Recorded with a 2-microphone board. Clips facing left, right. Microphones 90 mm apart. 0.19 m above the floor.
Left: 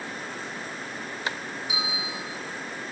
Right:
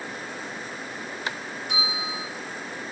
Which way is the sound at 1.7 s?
5° left (ahead or behind).